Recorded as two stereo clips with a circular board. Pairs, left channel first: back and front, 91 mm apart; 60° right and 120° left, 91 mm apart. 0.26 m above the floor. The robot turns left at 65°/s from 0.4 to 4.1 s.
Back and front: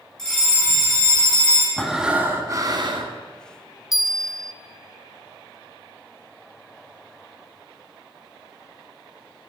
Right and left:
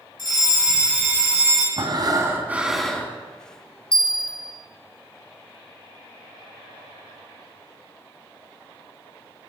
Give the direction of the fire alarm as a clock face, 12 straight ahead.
3 o'clock.